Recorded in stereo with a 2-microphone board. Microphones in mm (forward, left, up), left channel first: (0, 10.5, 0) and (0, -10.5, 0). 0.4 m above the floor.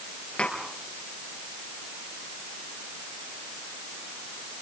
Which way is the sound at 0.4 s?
80° left.